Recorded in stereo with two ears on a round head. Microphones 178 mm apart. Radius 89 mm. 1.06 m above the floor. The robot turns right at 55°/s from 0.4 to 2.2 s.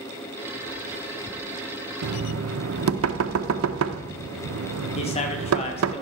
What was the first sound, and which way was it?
Knocking, 75° right (ahead or behind).